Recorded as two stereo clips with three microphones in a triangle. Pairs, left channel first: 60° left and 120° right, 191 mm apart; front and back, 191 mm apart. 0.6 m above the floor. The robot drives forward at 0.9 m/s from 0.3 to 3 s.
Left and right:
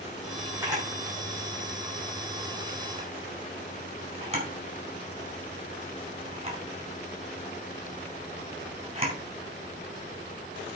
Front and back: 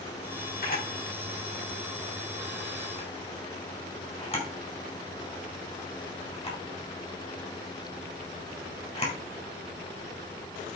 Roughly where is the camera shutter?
Ahead right.